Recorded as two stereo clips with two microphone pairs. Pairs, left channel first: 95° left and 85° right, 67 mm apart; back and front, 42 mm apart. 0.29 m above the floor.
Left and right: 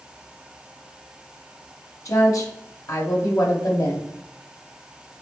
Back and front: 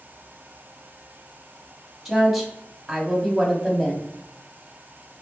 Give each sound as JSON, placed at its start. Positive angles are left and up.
{"t": 2.0, "sound": "a woman speaking", "azimuth_deg": 90, "distance_m": 1.6}